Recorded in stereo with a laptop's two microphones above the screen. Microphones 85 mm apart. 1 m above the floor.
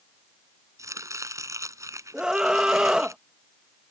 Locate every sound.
0.8 s chopping: 40° right (ahead or behind)
2.1 s a scream: 10° right (ahead or behind)